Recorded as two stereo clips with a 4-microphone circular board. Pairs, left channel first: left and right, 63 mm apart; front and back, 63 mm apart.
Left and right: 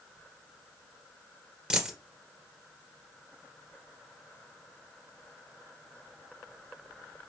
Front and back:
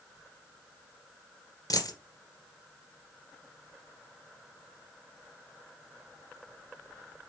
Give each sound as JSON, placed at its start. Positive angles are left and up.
{"t": 1.7, "sound": "a dropped coin", "azimuth_deg": -10, "distance_m": 2.0}